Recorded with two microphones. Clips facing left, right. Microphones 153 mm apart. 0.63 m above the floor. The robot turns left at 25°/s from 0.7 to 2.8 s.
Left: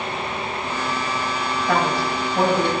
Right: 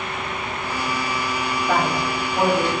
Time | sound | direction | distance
1.7 | a man speaking | centre (ahead or behind) | 3.5 m